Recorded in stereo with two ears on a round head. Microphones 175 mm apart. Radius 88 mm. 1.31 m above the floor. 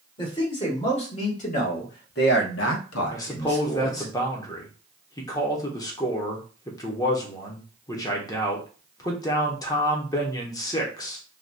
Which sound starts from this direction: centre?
A man speaking, at 3.1 s.